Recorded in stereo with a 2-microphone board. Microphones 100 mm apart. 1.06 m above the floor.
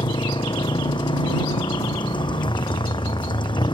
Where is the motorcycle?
55° left (ahead or behind); by 3.7 s 50° left (ahead or behind).